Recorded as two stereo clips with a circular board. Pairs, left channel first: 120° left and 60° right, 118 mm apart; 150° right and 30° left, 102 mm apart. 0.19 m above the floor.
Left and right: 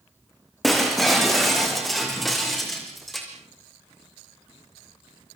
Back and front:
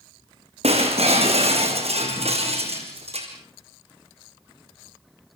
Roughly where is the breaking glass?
Ahead left.